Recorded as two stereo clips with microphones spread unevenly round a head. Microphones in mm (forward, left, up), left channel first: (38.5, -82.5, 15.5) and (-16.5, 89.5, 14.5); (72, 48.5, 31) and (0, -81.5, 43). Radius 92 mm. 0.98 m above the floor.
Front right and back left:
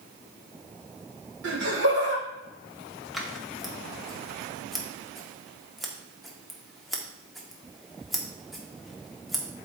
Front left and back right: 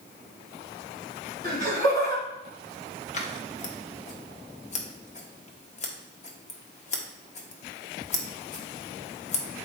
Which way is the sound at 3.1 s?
15° left.